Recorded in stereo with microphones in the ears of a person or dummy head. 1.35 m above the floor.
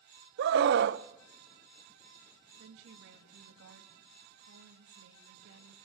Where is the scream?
60° right (ahead or behind), 0.8 m.